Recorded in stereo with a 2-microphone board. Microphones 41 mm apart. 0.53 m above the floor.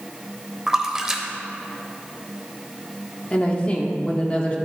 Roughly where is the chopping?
No chopping in this recording.